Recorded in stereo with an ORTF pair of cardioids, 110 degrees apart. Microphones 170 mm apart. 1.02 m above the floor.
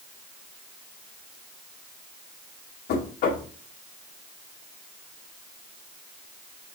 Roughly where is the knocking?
Ahead left.